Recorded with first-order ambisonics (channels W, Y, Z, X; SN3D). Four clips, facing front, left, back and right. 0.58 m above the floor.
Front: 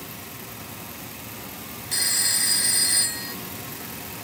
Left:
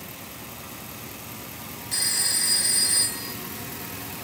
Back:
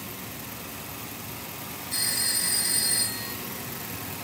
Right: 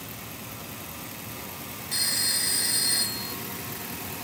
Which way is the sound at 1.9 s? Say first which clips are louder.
Left 1 dB, front 4 dB; straight ahead.